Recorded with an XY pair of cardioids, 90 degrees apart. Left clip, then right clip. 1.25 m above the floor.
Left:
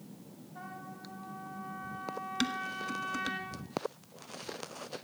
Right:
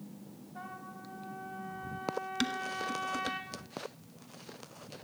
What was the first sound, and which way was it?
A trumpet, 40° right.